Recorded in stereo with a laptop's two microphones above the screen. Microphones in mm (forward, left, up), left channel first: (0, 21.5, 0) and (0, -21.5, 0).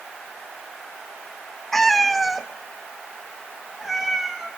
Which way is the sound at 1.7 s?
5° left (ahead or behind).